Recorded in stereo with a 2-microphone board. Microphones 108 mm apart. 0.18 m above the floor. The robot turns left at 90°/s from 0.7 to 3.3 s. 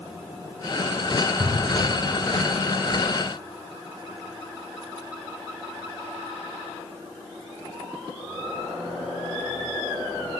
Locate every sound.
1.4 s an explosion: 160° right, 7 m; by 2.2 s 130° left, 7 m